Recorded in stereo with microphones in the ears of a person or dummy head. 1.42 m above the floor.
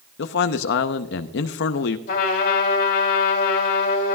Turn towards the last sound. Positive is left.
turn(degrees=60)  # may be behind; listen again after turning